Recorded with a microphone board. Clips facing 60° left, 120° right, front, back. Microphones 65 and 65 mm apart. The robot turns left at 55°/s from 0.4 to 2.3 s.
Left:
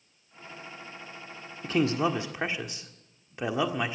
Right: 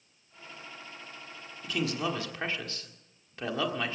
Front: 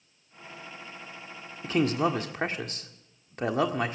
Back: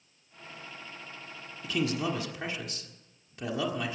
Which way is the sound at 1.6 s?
30° left.